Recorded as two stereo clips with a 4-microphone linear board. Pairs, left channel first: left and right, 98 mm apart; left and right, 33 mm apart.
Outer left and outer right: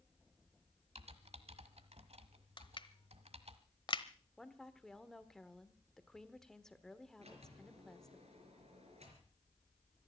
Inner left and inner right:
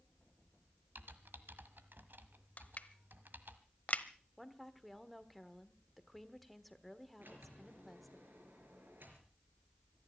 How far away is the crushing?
About 0.9 m.